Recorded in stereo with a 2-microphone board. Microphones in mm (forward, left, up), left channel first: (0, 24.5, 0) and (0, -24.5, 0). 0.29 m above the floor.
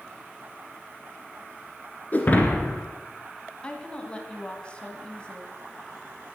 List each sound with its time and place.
2.1 s breaking glass: 35° left (ahead or behind), 2.0 m
3.6 s a woman speaking: 20° left (ahead or behind), 1.9 m